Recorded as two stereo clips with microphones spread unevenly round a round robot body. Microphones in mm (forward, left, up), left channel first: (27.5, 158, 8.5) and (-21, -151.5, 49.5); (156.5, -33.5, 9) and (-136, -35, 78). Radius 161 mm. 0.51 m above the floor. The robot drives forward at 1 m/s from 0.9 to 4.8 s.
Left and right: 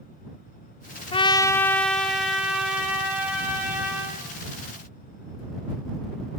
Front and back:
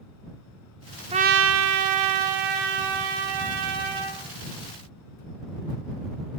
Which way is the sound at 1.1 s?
100° left.